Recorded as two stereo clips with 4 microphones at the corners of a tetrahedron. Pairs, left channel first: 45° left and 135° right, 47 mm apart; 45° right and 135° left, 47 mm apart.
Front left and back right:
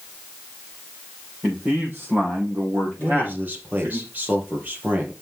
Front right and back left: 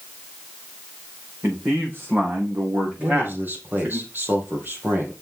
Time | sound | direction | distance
1.4 | a man speaking | 175° left | 4 m
3.0 | a man speaking | 175° left | 2.5 m